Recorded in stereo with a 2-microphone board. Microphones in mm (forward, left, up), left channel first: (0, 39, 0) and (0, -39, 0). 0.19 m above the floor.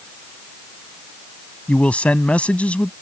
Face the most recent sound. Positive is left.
turn(degrees=15)  # may be behind; listen again after turning